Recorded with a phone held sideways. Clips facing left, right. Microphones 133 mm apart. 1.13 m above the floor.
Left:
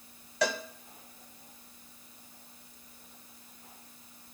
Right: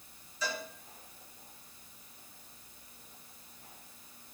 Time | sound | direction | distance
0.4 | a cowbell | 75° left (ahead or behind) | 0.9 m